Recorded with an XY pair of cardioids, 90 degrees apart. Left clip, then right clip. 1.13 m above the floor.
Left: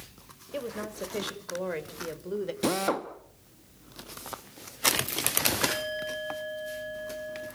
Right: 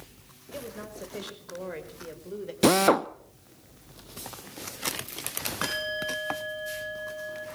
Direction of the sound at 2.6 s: 55° right.